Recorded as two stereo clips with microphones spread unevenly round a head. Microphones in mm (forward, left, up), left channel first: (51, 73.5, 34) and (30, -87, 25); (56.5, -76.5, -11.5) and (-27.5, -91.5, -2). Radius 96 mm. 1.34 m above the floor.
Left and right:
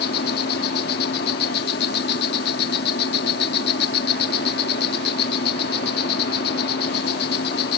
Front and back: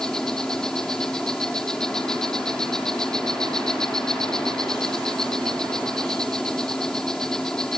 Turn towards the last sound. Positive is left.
turn(degrees=100)